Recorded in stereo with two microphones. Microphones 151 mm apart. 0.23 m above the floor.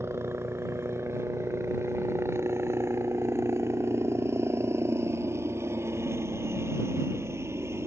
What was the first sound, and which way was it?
A helicopter, 15° right (ahead or behind).